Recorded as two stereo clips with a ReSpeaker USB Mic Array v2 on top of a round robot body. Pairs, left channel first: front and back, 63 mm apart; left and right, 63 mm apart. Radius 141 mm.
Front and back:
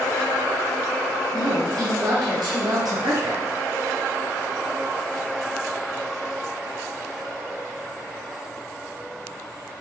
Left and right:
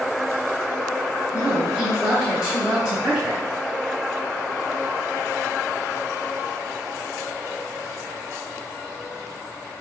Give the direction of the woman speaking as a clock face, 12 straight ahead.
5 o'clock.